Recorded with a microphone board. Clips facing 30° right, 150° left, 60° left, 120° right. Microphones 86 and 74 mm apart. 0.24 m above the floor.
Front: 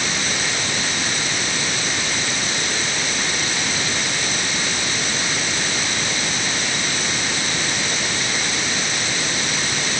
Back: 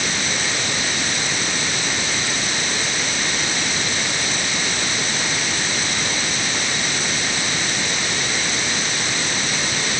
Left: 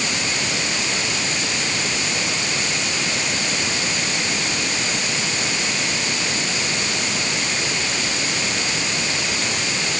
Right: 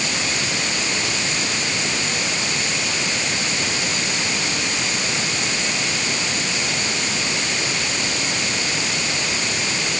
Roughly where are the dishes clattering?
I don't hear dishes clattering.